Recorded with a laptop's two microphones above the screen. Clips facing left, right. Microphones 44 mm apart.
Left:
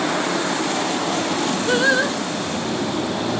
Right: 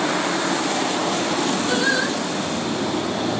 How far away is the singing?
About 3 m.